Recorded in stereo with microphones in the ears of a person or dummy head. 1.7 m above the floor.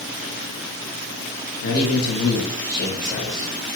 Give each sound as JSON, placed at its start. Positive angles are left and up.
{"t": 1.6, "sound": "a man speaking", "side_deg": 70, "distance_m": 0.9}